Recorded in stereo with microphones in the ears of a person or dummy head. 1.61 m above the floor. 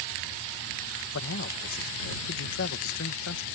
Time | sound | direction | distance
1.1 | a man speaking | 85° left | ?